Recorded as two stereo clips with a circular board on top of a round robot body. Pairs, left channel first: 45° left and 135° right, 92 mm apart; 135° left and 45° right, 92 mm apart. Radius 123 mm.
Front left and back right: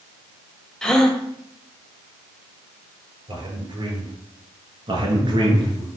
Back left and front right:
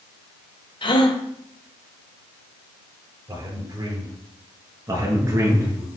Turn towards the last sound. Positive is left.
turn(degrees=-100)